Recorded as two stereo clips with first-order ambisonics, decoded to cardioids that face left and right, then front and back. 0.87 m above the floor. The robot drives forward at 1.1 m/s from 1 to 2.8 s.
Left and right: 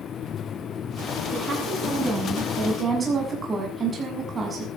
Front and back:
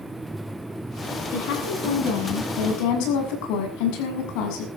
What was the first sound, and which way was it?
A woman speaking, 15° right.